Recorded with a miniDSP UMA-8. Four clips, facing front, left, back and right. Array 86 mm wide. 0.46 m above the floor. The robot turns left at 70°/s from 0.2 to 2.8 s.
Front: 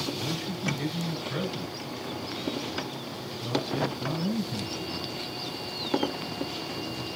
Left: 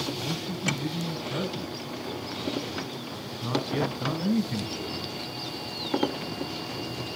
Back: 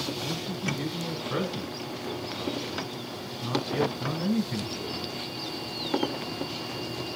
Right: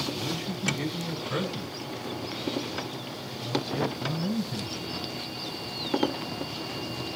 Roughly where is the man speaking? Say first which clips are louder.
Even, even; ahead right.